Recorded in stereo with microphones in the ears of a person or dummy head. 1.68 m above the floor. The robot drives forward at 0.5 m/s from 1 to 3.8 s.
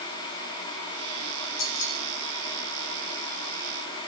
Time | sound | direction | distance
1.6 | keys jangling | 75° left (ahead or behind) | 2 m